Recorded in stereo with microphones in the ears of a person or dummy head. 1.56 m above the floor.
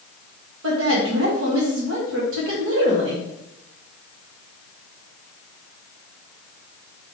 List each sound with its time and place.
0.6 s a woman speaking: 80° right, 1.6 m